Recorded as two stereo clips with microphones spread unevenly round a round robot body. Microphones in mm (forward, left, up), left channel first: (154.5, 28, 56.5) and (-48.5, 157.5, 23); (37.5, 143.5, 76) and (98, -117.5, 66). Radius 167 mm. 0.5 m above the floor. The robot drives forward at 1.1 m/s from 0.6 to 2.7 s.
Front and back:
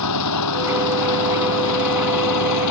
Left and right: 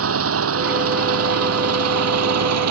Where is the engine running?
40° right; by 2.7 s 50° right.